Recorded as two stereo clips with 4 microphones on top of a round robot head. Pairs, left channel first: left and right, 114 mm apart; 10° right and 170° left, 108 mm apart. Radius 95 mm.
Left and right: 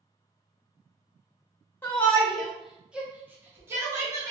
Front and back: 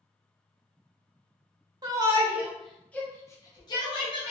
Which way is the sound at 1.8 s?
155° left.